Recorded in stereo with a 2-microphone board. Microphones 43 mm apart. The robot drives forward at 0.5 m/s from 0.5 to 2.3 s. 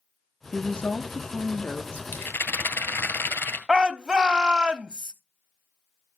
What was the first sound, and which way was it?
A woman speaking, 25° left (ahead or behind).